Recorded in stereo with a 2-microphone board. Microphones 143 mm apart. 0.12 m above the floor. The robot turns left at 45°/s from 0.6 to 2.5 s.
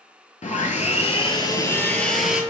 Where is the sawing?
75° left, 0.6 m; by 2.4 s 10° right, 0.6 m.